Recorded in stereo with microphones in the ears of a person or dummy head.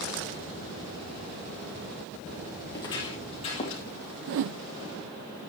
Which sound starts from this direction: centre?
Footsteps, at 2.7 s.